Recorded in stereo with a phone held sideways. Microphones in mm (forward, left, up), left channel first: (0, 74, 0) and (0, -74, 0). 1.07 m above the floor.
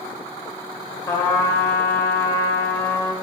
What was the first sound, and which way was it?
A trumpet, 20° left (ahead or behind).